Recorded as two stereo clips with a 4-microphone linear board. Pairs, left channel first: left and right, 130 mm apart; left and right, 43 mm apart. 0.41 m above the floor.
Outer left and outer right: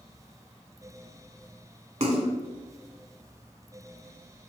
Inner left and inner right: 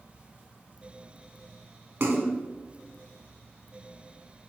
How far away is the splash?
About 0.6 m.